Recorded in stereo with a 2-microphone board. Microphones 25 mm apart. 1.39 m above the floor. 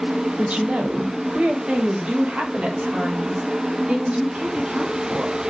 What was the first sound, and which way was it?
A woman speaking, 75° right (ahead or behind).